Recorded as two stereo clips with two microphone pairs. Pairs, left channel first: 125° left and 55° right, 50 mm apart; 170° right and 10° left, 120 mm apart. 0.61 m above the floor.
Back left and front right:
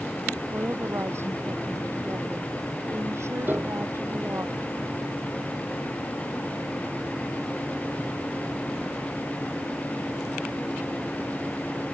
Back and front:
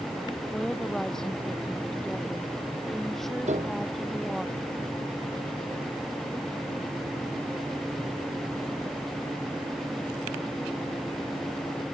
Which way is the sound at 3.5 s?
5° right.